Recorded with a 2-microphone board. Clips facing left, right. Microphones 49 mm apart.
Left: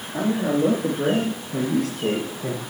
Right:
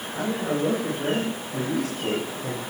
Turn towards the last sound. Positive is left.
turn(degrees=75)  # may be behind; listen again after turning